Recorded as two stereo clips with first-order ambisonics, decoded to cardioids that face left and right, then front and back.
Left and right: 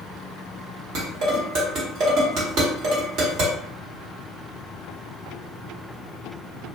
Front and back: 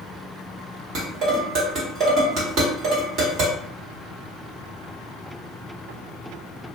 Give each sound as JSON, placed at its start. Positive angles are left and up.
{"t": 0.9, "sound": "dishes clattering", "azimuth_deg": -130, "distance_m": 1.6}